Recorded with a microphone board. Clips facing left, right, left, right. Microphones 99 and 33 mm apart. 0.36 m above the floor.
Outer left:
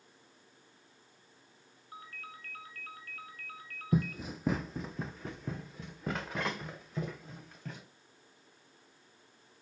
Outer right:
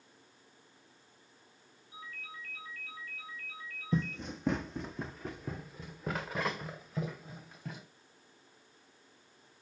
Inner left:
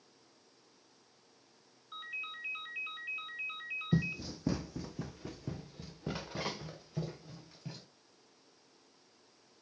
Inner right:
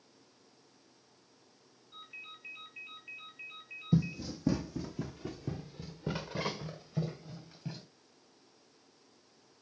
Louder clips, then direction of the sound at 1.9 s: Even, inner left 7 dB; 60° left (ahead or behind).